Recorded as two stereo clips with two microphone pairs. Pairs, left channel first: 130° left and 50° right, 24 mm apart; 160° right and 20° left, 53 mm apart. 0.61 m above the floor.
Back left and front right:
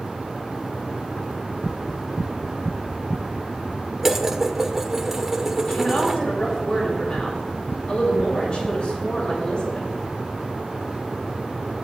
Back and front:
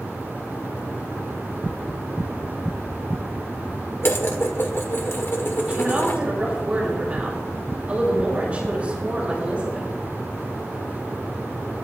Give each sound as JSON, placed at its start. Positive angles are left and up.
{"t": 4.0, "sound": "dishes clattering", "azimuth_deg": -125, "distance_m": 1.3}
{"t": 5.7, "sound": "a woman speaking", "azimuth_deg": 85, "distance_m": 7.0}